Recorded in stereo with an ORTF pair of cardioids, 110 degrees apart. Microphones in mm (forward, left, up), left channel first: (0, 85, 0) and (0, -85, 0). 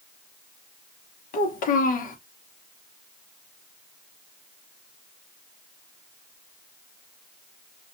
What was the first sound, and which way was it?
A child speaking, 50° left.